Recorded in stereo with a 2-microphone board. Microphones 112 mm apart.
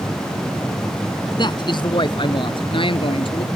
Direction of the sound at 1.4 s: 40° left (ahead or behind).